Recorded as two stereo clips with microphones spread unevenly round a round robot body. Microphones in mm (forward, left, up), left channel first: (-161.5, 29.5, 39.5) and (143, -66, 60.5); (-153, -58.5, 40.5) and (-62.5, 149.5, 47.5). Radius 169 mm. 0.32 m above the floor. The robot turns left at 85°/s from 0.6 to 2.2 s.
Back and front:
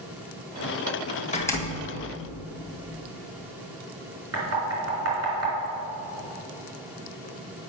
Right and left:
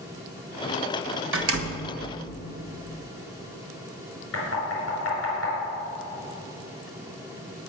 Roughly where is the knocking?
Ahead right.